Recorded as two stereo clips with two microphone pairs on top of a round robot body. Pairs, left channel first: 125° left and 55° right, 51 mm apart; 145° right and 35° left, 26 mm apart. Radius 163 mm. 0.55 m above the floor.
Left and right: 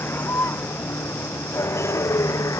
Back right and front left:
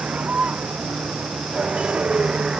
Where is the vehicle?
75° left; by 2.6 s 95° left.